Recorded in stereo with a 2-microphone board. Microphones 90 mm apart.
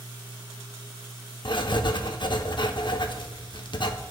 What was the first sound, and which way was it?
Writing, 60° left (ahead or behind).